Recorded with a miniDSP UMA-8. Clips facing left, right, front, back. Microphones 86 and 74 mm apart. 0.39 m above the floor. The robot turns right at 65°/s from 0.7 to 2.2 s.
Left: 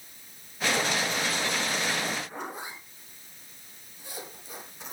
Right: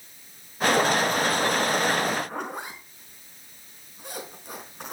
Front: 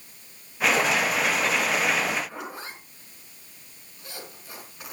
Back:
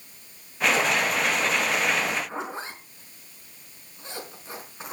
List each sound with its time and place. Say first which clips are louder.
2.3 s a zipper: right 4 dB, back 4 dB; 120° right, 4 m